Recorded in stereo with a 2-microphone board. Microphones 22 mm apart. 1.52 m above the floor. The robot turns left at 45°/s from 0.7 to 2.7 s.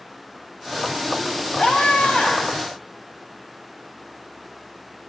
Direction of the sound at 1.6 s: 125° left.